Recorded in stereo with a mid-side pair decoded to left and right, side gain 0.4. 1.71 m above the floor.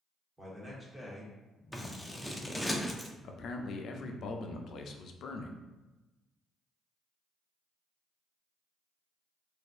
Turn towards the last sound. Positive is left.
turn(degrees=65)